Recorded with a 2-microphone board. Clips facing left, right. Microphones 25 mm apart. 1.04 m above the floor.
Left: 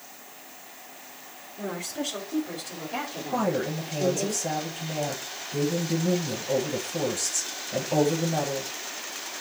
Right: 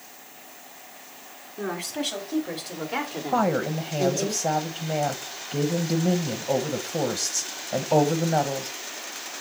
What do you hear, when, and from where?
1.6 s a woman speaking: 70° right (ahead or behind), 3.5 m; by 4.3 s 40° right (ahead or behind), 3 m
3.3 s a woman speaking: 45° right (ahead or behind), 1.2 m